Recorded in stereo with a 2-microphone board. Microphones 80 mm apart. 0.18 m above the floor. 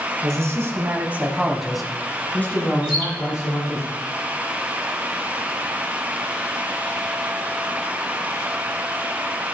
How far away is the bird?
About 3 m.